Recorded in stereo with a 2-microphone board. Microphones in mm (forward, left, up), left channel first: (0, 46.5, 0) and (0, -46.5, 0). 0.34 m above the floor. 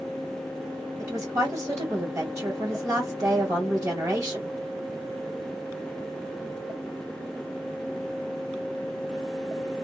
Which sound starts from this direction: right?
A woman speaking, at 1.0 s.